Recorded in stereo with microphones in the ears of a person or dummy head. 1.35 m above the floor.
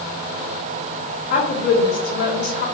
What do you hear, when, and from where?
1.3 s a woman speaking: 55° left (ahead or behind), 2.5 m